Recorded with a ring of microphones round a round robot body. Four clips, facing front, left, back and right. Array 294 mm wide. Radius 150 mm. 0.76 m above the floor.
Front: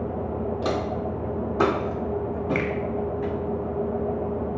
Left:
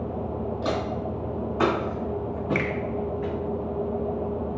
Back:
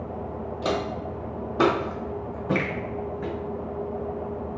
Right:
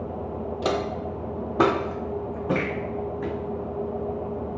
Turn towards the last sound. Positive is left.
turn(degrees=75)